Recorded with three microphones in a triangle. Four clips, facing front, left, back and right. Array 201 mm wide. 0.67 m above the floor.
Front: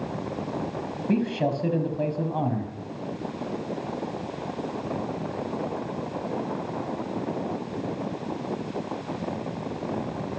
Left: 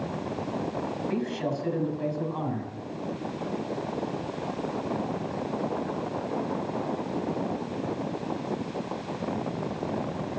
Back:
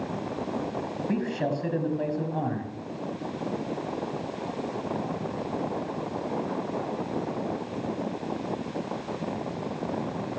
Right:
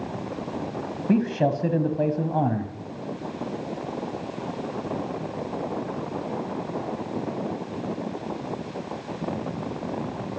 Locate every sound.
1.1 s a man speaking: 75° right, 5 m